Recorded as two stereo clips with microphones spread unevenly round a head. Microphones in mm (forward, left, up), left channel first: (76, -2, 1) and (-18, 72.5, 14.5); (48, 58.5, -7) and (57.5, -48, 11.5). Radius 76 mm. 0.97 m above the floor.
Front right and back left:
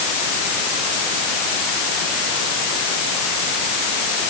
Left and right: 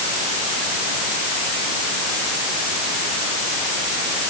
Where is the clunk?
No clunk in this recording.